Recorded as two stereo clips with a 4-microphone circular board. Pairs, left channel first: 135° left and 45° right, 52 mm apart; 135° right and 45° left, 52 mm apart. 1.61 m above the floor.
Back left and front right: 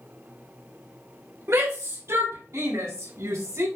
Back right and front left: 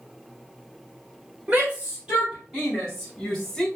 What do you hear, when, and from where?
1.5 s a shout: 15° right, 1.9 m; by 3.7 s 50° right, 2.5 m